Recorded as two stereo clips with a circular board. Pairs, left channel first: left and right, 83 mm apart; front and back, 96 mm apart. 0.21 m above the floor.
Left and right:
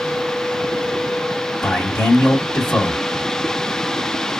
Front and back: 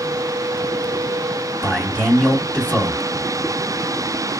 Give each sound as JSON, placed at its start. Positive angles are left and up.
{"t": 1.6, "sound": "a man speaking", "azimuth_deg": 15, "distance_m": 1.7}